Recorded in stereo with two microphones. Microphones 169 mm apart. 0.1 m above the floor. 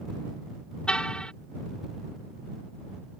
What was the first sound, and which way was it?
A car horn, 5° left (ahead or behind).